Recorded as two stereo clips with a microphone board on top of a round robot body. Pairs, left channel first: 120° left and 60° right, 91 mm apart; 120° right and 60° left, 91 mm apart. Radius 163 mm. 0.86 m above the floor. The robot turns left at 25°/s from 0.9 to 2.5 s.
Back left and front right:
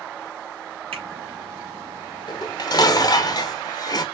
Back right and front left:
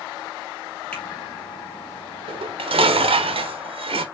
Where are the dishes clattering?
80° left, 0.9 m; by 4.0 s 75° left, 0.9 m.